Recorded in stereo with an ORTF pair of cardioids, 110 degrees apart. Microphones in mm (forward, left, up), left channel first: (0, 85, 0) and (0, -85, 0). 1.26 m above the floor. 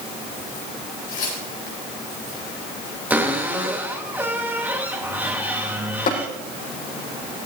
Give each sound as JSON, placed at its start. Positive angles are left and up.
{"t": 1.1, "sound": "tearing paper", "azimuth_deg": 55, "distance_m": 8.0}
{"t": 3.1, "sound": "a cupboard door", "azimuth_deg": -10, "distance_m": 2.5}
{"t": 6.1, "sound": "tapping", "azimuth_deg": 60, "distance_m": 9.0}